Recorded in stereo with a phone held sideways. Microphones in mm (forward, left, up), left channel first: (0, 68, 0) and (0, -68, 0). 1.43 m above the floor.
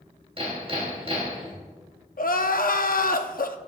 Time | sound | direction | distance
0.4 | hammering | 40° right (ahead or behind) | 2.5 m
2.2 | crying | 85° left | 0.6 m